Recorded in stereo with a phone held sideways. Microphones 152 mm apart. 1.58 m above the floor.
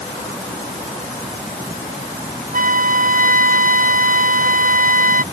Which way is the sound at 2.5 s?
65° right (ahead or behind).